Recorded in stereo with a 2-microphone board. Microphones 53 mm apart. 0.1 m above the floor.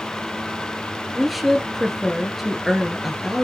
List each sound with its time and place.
1.1 s a woman speaking: centre (ahead or behind), 1.6 m